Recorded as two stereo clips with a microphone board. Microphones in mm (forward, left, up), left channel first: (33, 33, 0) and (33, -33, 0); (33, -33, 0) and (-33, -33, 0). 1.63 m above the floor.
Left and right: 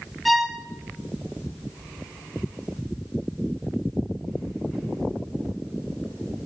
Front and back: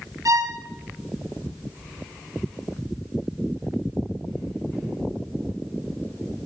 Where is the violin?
Straight behind, 1.3 m.